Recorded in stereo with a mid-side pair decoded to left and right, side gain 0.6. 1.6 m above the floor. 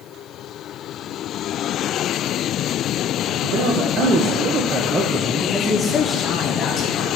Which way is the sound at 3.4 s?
60° right.